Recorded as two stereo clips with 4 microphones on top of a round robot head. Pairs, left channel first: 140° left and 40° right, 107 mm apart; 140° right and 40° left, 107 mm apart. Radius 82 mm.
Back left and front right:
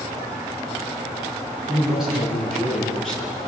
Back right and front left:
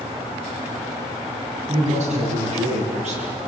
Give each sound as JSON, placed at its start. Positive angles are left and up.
{"t": 1.7, "sound": "a man speaking", "azimuth_deg": 45, "distance_m": 8.0}